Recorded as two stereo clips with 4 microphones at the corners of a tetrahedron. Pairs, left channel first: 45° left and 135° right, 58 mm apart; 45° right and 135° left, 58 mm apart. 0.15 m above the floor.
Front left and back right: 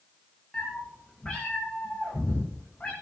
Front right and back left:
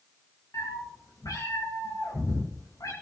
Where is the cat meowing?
30° right, 6.5 m.